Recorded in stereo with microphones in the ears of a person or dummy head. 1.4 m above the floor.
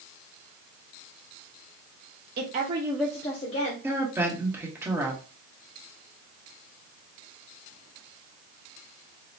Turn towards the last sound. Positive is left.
turn(degrees=-10)  # may be behind; listen again after turning